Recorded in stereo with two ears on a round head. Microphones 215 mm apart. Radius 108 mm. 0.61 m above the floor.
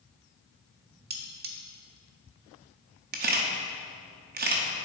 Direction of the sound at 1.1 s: 40° right (ahead or behind).